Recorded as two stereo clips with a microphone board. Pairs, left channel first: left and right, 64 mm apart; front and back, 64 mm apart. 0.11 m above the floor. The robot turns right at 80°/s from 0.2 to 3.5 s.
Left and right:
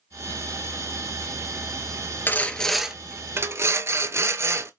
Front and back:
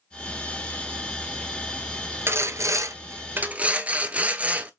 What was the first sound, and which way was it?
Sawing, 140° left.